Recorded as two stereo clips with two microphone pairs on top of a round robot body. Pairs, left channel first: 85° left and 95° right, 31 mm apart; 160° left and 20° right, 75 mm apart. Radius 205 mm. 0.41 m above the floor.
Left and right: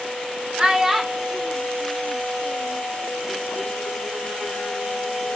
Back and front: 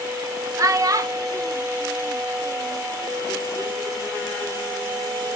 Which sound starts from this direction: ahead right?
A child speaking, at 0.6 s.